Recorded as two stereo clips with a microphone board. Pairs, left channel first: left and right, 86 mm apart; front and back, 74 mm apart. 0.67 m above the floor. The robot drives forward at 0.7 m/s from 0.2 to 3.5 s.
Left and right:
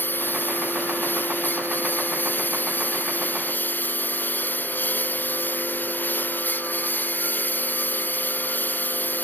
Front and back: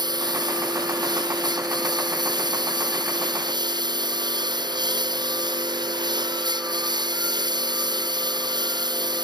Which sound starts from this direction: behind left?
A lawn mower, at 0.0 s.